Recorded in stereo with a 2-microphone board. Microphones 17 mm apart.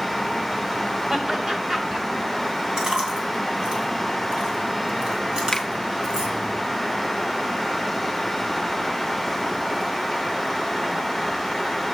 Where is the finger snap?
25° left (ahead or behind), 0.8 m.